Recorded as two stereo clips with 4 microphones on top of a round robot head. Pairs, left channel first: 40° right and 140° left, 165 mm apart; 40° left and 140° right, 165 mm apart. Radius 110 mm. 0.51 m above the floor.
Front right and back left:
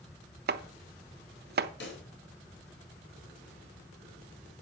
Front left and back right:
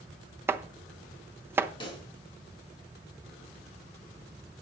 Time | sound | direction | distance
0.5 | chopping | 145° left | 0.9 m
1.8 | a pop | 25° right | 4 m